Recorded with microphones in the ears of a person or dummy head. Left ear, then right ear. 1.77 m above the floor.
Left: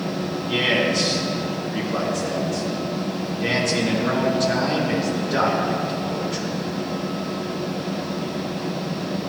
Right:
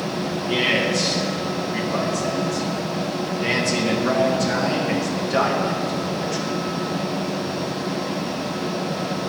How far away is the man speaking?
About 1.5 m.